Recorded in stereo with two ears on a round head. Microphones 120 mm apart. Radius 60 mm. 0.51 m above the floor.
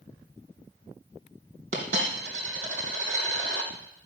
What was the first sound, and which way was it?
A dropped coin, 55° right (ahead or behind).